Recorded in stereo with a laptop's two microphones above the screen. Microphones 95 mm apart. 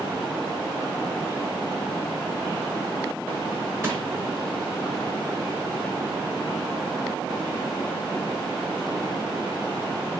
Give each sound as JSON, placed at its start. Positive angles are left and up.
{"t": 3.8, "sound": "crushing", "side_deg": -30, "distance_m": 2.5}